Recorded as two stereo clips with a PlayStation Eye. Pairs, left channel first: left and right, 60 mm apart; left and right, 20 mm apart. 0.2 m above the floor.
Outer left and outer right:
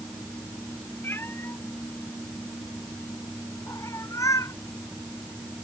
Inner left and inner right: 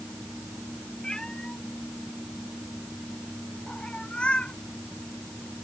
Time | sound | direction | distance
1.0 | a cat meowing | 35° left (ahead or behind) | ?